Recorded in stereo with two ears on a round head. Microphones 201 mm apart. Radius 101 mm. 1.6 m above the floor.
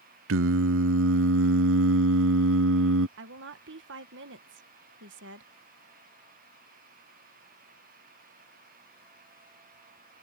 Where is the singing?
60° right (ahead or behind).